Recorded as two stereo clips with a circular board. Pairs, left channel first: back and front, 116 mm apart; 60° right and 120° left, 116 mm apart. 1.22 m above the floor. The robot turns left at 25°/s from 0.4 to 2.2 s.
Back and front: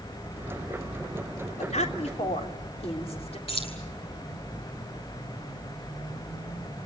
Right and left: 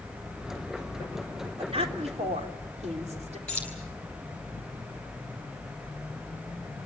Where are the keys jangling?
140° right, 8.5 m.